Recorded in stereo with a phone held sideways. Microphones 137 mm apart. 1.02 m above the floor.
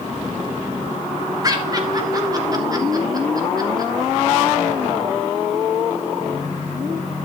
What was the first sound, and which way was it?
Laughter, 25° right (ahead or behind).